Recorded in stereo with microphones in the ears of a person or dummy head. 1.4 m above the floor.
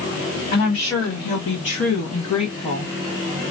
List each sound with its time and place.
0.5 s a woman speaking: 45° left (ahead or behind), 3 m; by 2.9 s 25° left (ahead or behind), 1.3 m